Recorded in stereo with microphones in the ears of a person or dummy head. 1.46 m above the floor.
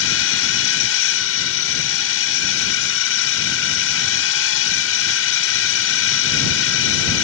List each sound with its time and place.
0.0 s a drone: 70° left (ahead or behind)